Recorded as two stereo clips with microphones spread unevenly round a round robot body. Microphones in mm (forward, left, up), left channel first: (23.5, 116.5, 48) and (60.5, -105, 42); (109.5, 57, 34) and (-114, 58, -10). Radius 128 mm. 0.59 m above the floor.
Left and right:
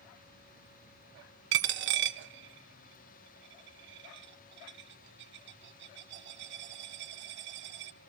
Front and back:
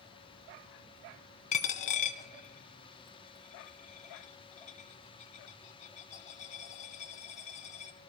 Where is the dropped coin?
50° right, 0.6 m.